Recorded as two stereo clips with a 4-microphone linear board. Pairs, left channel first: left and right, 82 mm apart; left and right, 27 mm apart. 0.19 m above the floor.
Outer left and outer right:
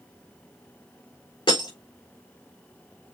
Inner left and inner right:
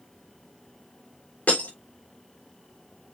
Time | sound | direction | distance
1.5 | breaking glass | 75° left (ahead or behind) | 4 m